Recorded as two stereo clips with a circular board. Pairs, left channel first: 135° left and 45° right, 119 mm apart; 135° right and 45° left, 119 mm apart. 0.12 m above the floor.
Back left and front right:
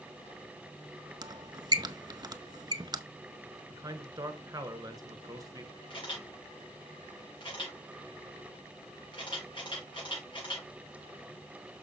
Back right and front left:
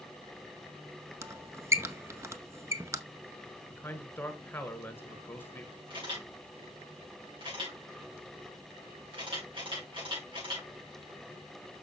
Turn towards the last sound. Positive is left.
turn(degrees=90)